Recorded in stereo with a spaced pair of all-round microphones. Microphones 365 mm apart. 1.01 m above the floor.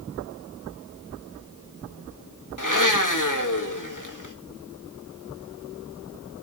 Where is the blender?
55° left (ahead or behind), 1.9 m.